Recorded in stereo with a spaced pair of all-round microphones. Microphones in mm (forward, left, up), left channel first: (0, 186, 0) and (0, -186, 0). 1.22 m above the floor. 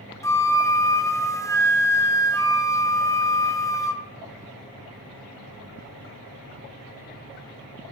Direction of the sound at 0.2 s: 10° left (ahead or behind).